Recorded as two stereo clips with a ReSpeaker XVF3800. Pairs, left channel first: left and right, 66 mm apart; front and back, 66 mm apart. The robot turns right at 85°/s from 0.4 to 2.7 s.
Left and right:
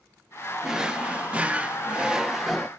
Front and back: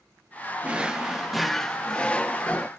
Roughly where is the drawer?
Behind.